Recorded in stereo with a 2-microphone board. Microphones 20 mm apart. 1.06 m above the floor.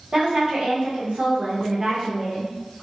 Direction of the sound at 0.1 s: 45° right (ahead or behind).